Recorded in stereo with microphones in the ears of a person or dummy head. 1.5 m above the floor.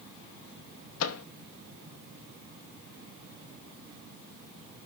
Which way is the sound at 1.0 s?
75° left (ahead or behind).